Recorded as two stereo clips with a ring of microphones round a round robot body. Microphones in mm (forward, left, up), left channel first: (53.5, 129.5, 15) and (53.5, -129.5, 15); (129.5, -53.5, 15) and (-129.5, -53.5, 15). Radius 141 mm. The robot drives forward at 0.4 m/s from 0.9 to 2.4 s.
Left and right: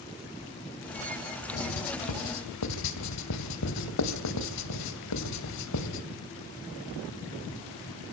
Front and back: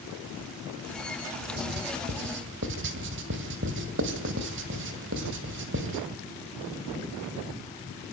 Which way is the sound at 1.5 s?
120° left.